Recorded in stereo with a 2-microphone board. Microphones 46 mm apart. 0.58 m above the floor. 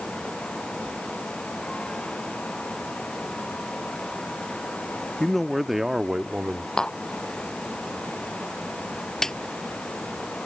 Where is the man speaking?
10° left (ahead or behind); by 6.7 s 20° right (ahead or behind).